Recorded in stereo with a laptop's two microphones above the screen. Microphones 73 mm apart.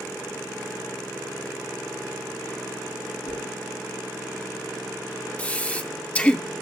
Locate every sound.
3.2 s a whoosh: 65° left (ahead or behind), 6.5 m
5.4 s breathing: 20° left (ahead or behind), 0.6 m